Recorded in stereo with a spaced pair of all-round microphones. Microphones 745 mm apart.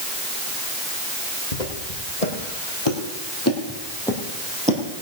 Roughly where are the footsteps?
Left.